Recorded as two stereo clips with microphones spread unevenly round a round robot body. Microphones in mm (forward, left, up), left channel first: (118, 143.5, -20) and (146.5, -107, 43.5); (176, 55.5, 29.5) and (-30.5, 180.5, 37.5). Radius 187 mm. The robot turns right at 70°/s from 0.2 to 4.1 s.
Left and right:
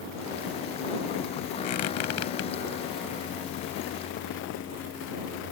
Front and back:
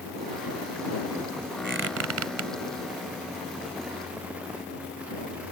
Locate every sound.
1.6 s a squeak: 100° left; by 2.5 s 160° left